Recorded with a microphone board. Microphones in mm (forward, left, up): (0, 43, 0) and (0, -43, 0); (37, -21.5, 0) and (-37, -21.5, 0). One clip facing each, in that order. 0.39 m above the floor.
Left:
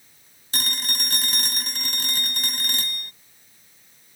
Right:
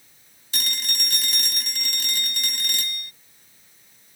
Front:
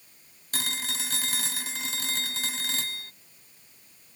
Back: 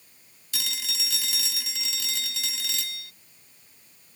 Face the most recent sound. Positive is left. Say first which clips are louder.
# left 2 dB, front 2 dB
turn(degrees=45)